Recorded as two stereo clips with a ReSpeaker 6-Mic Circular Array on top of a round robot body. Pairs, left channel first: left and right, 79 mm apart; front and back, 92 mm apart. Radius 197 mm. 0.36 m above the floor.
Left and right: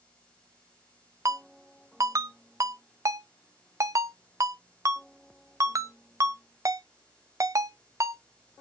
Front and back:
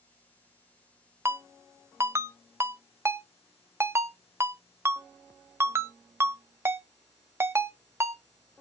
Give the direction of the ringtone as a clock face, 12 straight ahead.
4 o'clock.